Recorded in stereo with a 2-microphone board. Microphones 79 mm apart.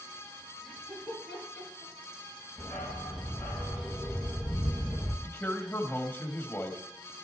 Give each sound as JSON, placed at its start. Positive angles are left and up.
{"t": 0.6, "sound": "laughter", "side_deg": 10, "distance_m": 5.5}
{"t": 2.6, "sound": "a dog barking", "side_deg": 5, "distance_m": 3.0}
{"t": 5.2, "sound": "a man speaking", "side_deg": 20, "distance_m": 1.6}